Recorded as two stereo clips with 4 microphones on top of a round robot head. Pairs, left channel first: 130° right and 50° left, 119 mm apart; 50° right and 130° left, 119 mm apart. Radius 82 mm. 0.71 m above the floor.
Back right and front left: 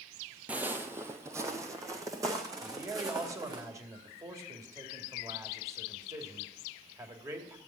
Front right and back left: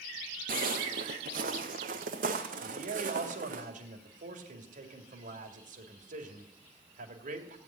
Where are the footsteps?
130° left, 1.0 m; by 3.6 s 115° left, 3.5 m.